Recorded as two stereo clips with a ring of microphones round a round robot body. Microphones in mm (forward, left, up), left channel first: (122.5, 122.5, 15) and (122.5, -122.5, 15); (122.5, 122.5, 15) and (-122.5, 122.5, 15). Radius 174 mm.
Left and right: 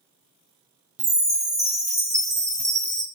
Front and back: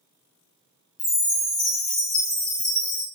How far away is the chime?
About 1.1 m.